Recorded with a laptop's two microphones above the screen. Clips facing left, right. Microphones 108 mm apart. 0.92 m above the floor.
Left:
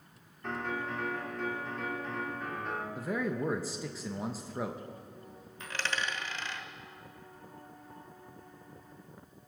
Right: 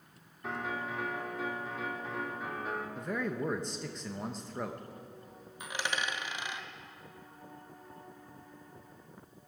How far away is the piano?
About 2.5 m.